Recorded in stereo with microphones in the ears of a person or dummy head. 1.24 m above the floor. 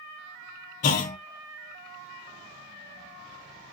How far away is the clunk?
About 0.5 m.